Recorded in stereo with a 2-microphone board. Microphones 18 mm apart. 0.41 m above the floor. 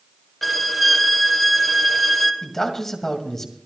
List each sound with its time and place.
0.4 s a violin: 5° left (ahead or behind), 1.6 m
2.4 s a man speaking: 20° left (ahead or behind), 2 m